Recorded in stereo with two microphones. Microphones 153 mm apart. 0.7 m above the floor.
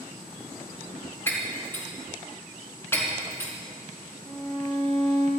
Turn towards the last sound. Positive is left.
turn(degrees=10)  # may be behind; listen again after turning